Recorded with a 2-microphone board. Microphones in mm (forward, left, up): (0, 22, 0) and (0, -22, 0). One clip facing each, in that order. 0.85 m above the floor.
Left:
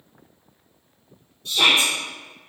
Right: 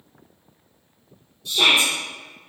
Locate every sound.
1.4 s a shout: 40° left (ahead or behind), 1.4 m